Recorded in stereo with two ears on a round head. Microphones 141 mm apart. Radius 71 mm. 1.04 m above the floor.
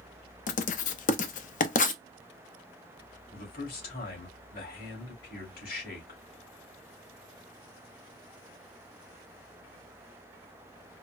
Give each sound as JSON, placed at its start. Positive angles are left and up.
{"t": 0.5, "sound": "writing", "side_deg": 50, "distance_m": 0.6}
{"t": 3.3, "sound": "a man speaking", "side_deg": 65, "distance_m": 2.5}